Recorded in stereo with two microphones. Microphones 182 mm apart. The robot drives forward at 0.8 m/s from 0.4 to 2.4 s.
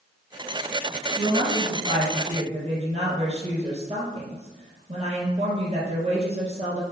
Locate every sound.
1.2 s a woman speaking: 40° right (ahead or behind), 3 m; by 6.8 s 35° right (ahead or behind), 3.5 m